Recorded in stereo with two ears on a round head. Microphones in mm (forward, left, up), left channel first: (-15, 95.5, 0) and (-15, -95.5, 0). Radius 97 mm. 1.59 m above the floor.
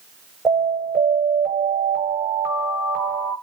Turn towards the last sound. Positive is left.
turn(degrees=0)  # may be behind; listen again after turning